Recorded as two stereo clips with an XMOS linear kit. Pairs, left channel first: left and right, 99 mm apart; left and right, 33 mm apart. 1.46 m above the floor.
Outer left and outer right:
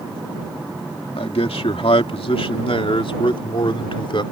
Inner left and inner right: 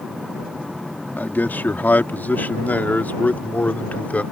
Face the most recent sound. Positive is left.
turn(degrees=60)  # may be behind; listen again after turning